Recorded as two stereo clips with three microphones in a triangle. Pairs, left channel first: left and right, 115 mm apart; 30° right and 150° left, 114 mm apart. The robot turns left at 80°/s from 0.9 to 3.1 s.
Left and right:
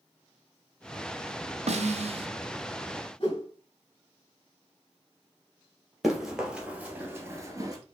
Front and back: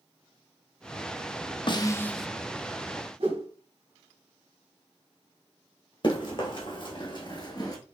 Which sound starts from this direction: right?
A snare drum, at 1.7 s.